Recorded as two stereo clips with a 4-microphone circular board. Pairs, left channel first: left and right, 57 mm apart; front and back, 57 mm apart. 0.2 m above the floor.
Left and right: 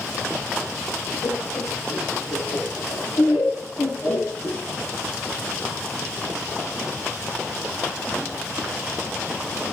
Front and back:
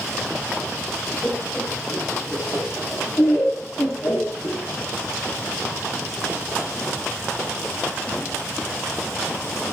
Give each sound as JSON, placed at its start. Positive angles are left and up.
{"t": 1.2, "sound": "laughter", "azimuth_deg": 80, "distance_m": 9.0}